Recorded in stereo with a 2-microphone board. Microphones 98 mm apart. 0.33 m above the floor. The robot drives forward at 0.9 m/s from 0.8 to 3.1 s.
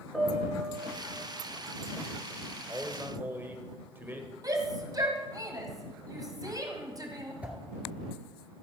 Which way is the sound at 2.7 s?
20° right (ahead or behind).